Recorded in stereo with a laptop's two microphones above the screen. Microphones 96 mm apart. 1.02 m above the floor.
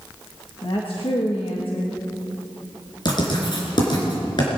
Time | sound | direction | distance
0.6 | a woman speaking | 65° left (ahead or behind) | 1.5 m
3.0 | writing | 50° left (ahead or behind) | 4 m